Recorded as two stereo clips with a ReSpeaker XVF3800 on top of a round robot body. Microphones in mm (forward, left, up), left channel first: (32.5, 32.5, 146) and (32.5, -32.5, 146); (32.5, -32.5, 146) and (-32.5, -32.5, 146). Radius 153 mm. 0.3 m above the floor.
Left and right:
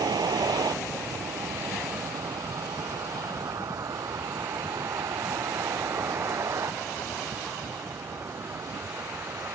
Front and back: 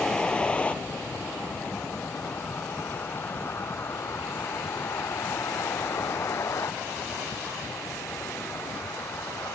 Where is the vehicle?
80° right; by 9.6 s 40° right.